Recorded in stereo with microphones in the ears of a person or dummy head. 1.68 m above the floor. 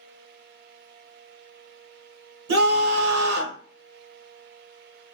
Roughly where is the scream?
Right.